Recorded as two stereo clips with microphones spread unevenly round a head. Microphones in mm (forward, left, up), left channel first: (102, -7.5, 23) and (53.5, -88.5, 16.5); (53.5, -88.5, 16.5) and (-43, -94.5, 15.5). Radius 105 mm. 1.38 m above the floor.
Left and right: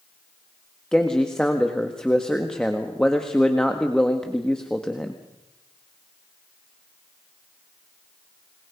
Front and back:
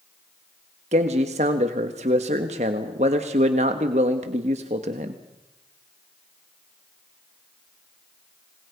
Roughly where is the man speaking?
Behind left.